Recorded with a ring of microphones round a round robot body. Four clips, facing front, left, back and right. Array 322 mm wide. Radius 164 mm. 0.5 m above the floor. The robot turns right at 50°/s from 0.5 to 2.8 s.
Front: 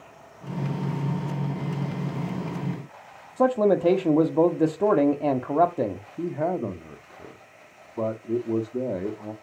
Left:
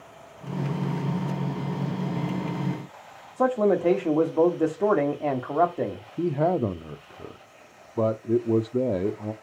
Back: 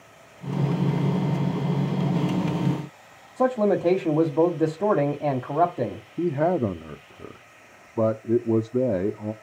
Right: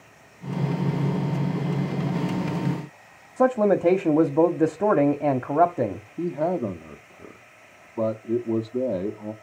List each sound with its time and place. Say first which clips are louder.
3.4 s a man speaking: right 2 dB, front 1 dB; 65° right, 1.3 m
6.2 s a man speaking: left 2 dB, back 5 dB; 150° left, 0.8 m